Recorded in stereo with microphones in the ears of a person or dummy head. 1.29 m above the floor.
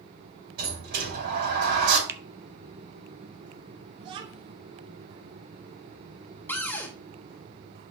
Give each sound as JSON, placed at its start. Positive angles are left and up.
{"t": 0.6, "sound": "a sliding door", "side_deg": -55, "distance_m": 5.5}
{"t": 2.1, "sound": "a finger snap", "side_deg": -15, "distance_m": 0.6}
{"t": 4.0, "sound": "a child speaking", "side_deg": -30, "distance_m": 0.8}
{"t": 6.5, "sound": "a cupboard door", "side_deg": 10, "distance_m": 1.0}